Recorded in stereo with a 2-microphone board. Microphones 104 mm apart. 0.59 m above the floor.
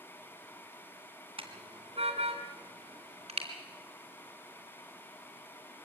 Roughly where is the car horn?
Right.